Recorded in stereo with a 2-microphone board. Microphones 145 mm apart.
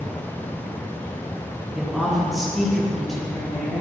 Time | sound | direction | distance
1.7 | a woman speaking | centre (ahead or behind) | 4 m